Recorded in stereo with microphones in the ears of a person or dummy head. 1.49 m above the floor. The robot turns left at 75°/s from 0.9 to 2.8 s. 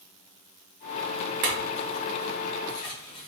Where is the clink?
45° right (ahead or behind), 0.7 m; by 3.3 s 25° left (ahead or behind), 0.7 m.